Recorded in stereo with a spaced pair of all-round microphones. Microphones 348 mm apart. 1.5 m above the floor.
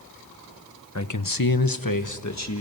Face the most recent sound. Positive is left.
turn(degrees=45)  # may be behind; listen again after turning